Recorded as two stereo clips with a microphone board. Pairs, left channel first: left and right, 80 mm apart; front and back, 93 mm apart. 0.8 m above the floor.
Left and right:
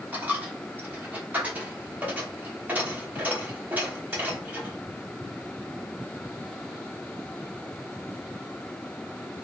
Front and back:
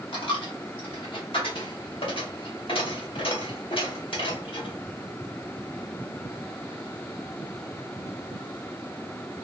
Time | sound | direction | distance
0.1 | a dropped coin | 20° right | 0.9 m